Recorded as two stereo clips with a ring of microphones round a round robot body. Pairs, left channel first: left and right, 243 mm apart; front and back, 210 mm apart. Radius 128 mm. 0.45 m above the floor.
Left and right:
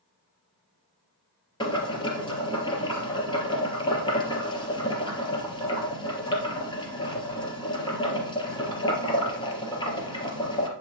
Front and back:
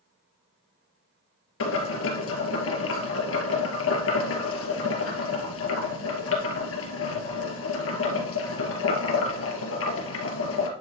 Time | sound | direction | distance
1.6 | boiling | 20° left | 2.5 m